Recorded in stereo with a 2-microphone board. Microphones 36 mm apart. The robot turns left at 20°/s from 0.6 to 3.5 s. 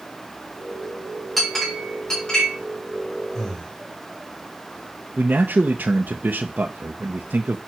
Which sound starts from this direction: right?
A man speaking, at 5.2 s.